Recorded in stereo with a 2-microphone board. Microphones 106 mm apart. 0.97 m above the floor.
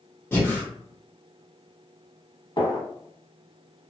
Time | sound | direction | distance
0.3 | breathing | 20° left (ahead or behind) | 0.9 m
2.6 | a gunshot | 45° left (ahead or behind) | 1.2 m